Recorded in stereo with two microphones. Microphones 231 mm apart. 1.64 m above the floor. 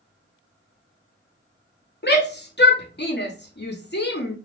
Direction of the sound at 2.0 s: 45° left (ahead or behind).